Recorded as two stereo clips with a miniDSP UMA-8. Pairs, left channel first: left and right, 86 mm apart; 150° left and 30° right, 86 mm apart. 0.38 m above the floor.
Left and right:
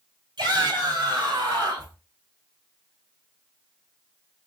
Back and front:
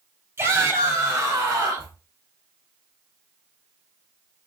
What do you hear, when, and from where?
0.4 s a shout: 80° right, 3 m; by 1.9 s 60° right, 3 m